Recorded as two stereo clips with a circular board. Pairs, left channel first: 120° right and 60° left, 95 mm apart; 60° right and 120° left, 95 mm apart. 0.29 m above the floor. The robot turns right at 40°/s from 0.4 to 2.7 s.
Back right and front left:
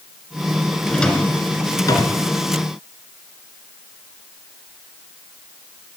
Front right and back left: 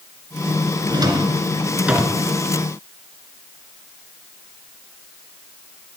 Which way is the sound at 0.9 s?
155° left.